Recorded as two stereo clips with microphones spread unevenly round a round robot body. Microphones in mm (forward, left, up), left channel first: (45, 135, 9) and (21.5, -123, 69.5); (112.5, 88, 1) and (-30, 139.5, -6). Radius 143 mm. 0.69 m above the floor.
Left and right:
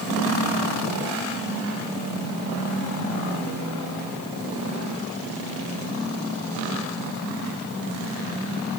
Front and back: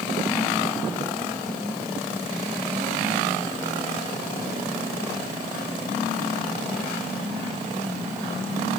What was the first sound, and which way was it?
Only background noise.